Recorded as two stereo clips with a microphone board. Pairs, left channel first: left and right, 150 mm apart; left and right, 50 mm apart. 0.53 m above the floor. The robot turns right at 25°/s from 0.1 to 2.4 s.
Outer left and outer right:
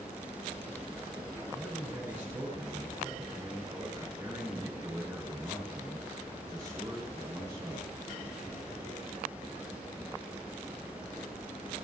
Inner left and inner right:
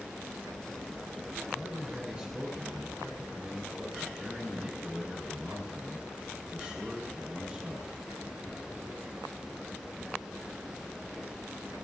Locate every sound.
1.5 s a man speaking: 5° right (ahead or behind), 6 m; by 7.9 s 25° right (ahead or behind), 6 m